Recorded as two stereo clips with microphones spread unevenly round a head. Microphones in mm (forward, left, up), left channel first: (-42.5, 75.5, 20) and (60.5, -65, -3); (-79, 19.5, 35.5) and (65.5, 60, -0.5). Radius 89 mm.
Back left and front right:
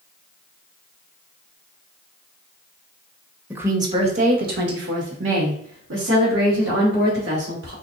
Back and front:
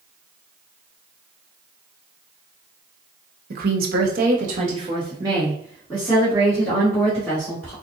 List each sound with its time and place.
3.5 s a woman speaking: 25° left, 1.1 m; by 7.7 s 80° right, 3 m